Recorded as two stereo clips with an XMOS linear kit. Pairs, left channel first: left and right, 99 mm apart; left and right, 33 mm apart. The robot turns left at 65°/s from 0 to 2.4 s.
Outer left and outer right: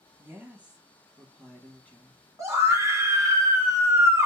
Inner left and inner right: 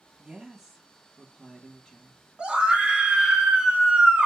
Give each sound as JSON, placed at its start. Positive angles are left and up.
{"t": 0.2, "sound": "a woman speaking", "side_deg": -20, "distance_m": 1.0}
{"t": 2.4, "sound": "a scream", "side_deg": -30, "distance_m": 1.4}